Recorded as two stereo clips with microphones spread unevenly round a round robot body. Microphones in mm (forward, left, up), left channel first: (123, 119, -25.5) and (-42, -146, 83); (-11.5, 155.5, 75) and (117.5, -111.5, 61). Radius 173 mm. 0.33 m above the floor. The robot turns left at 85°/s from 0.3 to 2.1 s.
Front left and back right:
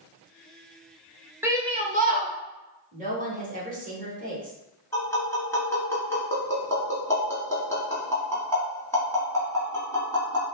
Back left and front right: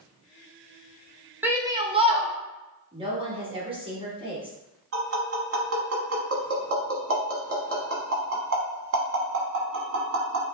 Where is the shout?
5° left, 0.9 m; by 2.3 s 55° right, 0.9 m.